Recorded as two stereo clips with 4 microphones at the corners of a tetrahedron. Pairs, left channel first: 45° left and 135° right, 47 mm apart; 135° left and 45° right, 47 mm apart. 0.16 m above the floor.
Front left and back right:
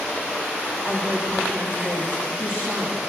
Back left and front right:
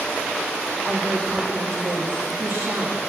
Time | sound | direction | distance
0.8 | a woman speaking | 70° right | 8.5 m